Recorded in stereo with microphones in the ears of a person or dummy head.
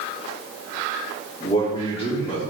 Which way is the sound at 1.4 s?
35° left (ahead or behind).